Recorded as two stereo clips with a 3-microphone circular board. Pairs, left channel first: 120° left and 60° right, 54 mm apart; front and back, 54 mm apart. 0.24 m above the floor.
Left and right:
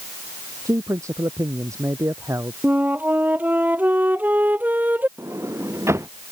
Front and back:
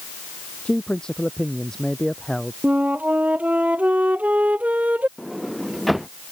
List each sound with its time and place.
0.7 s a man speaking: 75° right; by 2.5 s 85° right
2.6 s a flute: 120° right
5.2 s a sliding door: 90° right